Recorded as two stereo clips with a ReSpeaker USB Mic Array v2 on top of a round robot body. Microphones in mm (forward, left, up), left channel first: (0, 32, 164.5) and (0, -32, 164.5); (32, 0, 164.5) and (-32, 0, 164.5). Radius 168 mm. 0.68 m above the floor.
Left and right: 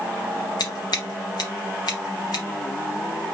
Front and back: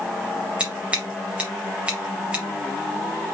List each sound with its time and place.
0.6 s scissors: 105° left, 0.7 m